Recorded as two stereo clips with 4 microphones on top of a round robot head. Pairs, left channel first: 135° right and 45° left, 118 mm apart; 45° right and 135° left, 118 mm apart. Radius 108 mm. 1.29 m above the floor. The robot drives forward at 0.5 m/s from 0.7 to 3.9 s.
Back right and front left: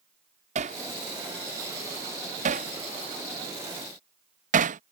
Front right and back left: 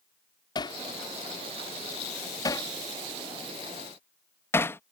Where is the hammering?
15° left; by 4.8 s 30° left.